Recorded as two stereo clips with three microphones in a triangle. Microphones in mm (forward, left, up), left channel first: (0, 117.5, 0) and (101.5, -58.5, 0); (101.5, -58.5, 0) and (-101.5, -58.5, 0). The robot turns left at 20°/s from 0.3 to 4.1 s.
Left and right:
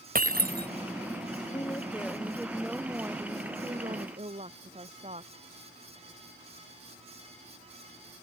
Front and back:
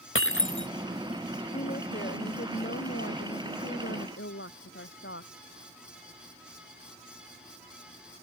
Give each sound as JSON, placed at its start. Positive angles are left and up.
{"t": 0.1, "sound": "breaking glass", "azimuth_deg": -15}
{"t": 1.5, "sound": "a woman speaking", "azimuth_deg": 50}